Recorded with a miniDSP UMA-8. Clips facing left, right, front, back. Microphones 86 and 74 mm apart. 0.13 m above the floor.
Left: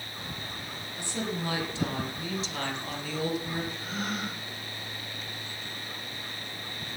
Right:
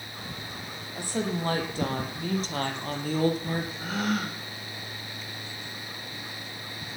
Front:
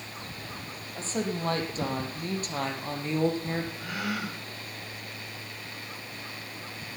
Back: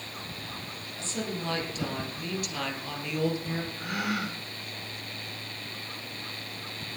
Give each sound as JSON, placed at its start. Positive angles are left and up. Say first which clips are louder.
{"t": 0.9, "sound": "a woman speaking", "louder": "right 4 dB, front 4 dB", "azimuth_deg": -50, "distance_m": 5.0}
{"t": 3.8, "sound": "a gasp", "louder": "right 5 dB, back 2 dB", "azimuth_deg": -105, "distance_m": 4.0}